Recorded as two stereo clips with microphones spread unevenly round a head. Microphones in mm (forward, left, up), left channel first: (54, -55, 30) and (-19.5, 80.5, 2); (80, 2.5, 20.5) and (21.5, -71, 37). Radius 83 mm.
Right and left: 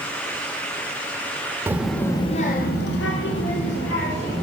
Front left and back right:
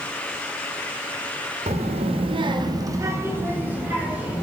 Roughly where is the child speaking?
Behind.